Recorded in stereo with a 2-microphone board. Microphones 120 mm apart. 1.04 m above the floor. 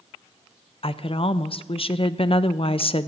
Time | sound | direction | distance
0.8 | a woman speaking | 50° left (ahead or behind) | 0.6 m